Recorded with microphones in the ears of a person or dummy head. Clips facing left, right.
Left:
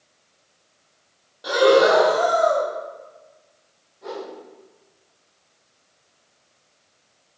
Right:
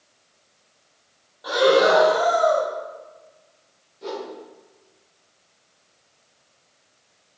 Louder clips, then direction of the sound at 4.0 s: Right 1 dB; 40° right (ahead or behind).